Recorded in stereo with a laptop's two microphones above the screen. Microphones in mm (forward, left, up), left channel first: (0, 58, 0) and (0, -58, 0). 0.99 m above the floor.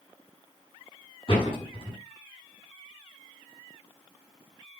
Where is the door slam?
50° left (ahead or behind), 7.5 m.